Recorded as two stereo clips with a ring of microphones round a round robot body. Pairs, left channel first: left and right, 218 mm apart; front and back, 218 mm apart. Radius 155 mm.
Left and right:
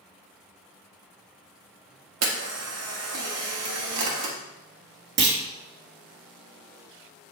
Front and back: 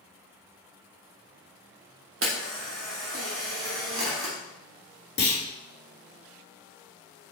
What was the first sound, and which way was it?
A camera shutter, 130° right.